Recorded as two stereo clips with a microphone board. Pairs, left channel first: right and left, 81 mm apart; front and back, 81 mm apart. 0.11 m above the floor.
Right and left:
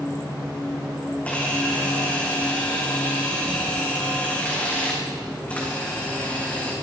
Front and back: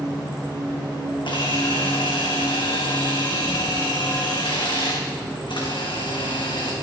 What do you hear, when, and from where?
1.2 s a camera shutter: 15° right, 3 m